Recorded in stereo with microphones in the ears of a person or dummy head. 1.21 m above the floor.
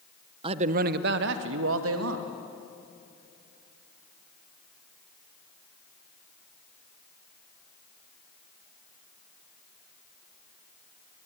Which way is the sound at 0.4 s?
30° right (ahead or behind).